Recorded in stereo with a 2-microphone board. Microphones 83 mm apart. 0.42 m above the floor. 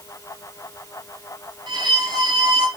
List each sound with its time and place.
1.7 s a violin: 65° right (ahead or behind), 2 m